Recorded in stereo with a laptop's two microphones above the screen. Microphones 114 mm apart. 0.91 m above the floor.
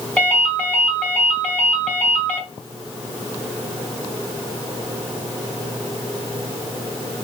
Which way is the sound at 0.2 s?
10° left (ahead or behind).